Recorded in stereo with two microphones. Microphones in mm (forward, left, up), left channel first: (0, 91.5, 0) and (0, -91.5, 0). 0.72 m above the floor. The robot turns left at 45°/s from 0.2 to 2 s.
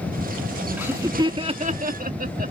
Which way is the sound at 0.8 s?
10° right (ahead or behind).